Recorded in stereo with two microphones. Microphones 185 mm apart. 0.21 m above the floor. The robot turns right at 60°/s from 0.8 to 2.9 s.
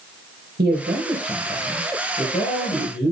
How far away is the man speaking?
About 4.5 m.